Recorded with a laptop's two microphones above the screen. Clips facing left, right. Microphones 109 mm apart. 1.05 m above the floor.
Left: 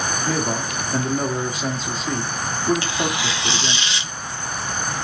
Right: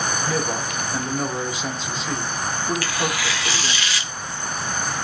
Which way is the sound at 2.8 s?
25° left (ahead or behind).